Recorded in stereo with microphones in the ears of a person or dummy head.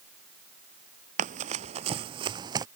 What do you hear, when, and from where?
1.2 s running footsteps: 40° right (ahead or behind); by 2.7 s 20° right (ahead or behind)